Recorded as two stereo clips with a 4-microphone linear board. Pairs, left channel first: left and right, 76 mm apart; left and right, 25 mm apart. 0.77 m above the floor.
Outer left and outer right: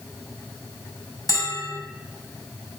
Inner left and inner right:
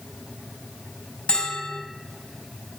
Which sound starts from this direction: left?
A bell, at 1.3 s.